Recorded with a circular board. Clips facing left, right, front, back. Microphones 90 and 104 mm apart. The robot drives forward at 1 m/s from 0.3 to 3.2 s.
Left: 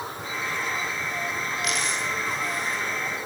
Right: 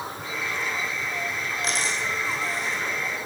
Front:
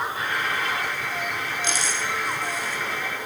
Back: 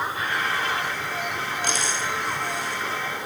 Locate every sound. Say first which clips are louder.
1.6 s a dropped coin: right 2 dB, back 1 dB; 145° right, 7 m; by 2.8 s 150° right, 8 m